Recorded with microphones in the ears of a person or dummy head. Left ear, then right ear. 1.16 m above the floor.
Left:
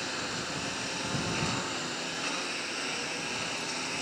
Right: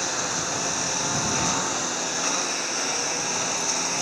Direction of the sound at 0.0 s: 25° right (ahead or behind).